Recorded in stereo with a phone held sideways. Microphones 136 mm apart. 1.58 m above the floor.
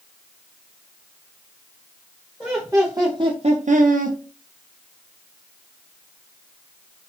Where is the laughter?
10° right (ahead or behind), 0.9 m; by 4.2 s 75° right (ahead or behind), 0.5 m.